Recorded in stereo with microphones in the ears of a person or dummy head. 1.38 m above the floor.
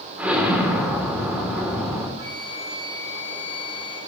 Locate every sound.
0.2 s an explosion: 5° right (ahead or behind), 3.5 m
2.2 s a flute: 20° right (ahead or behind), 3.5 m